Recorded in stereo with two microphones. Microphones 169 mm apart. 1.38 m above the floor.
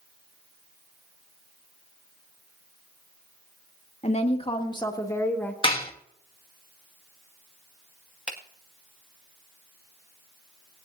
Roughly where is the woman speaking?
Left.